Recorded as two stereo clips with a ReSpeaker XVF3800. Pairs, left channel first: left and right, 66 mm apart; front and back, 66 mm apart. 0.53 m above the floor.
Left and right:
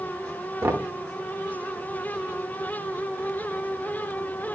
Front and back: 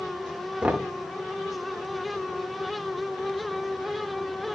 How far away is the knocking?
About 0.8 m.